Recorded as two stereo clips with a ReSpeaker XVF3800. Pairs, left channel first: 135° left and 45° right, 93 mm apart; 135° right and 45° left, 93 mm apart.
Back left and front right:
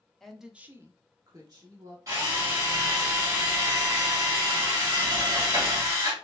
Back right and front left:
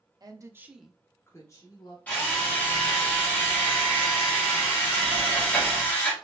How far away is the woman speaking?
About 0.8 m.